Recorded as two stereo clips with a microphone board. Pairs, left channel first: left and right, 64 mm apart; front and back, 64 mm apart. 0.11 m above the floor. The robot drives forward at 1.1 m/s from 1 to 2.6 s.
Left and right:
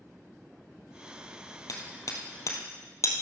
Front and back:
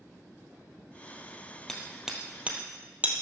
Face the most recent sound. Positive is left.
turn(degrees=115)